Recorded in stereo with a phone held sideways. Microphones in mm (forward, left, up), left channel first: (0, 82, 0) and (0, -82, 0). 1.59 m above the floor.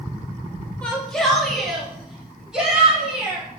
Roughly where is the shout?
Centre.